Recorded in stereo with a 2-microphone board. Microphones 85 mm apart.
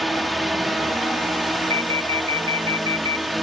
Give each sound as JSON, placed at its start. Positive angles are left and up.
{"t": 0.0, "sound": "a drone", "side_deg": 0}
{"t": 1.7, "sound": "an alarm", "side_deg": -80}